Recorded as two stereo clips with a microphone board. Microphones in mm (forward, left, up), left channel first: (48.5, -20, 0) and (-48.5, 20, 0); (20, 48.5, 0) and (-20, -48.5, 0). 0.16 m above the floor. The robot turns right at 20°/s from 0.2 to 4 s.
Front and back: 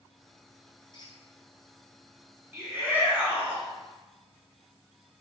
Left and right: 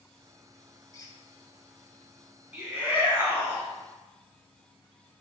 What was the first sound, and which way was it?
A squeak, 15° left.